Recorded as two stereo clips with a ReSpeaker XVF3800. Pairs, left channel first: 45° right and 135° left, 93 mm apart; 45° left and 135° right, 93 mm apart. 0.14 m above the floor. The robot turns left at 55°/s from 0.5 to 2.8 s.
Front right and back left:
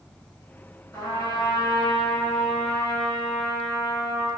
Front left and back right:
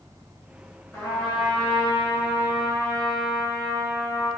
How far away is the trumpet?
About 1.7 m.